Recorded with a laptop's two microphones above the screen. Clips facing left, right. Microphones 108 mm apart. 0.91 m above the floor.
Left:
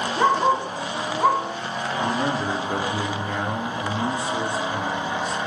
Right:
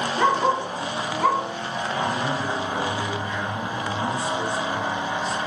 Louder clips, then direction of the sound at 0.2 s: Left 2 dB; 20° left (ahead or behind).